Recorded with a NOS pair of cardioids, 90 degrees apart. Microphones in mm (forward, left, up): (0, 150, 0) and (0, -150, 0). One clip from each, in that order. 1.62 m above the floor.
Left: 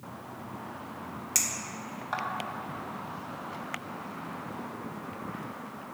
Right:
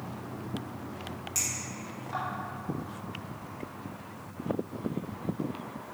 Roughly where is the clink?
Ahead left.